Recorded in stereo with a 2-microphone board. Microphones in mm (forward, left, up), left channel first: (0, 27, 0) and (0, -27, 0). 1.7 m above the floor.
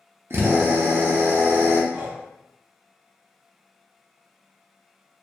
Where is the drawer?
No drawer in this recording.